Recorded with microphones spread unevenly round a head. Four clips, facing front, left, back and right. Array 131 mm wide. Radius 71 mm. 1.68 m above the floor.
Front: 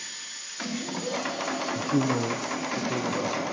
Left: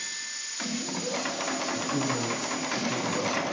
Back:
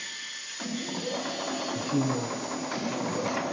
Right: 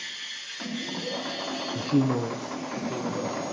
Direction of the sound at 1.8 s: 60° right.